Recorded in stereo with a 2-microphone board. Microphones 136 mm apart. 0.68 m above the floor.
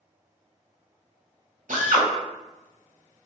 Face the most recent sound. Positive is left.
turn(degrees=-75)  # may be behind; listen again after turning